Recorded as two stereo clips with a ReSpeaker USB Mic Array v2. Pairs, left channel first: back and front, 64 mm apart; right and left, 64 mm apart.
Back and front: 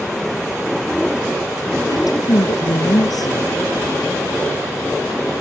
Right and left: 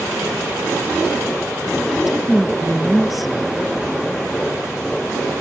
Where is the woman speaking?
175° left.